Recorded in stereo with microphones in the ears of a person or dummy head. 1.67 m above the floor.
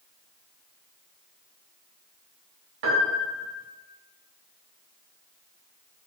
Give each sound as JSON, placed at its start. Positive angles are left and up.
{"t": 2.8, "sound": "a piano", "side_deg": -60, "distance_m": 0.8}